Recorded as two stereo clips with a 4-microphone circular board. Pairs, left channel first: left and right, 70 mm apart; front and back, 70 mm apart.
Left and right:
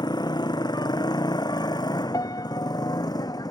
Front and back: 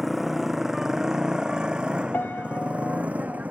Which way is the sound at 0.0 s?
95° left.